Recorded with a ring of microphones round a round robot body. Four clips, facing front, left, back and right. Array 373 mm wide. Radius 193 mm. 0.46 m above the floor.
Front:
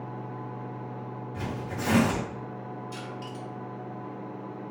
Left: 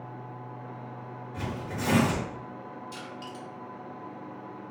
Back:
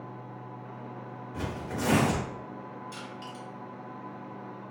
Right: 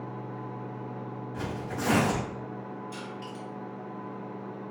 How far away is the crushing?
About 1.7 m.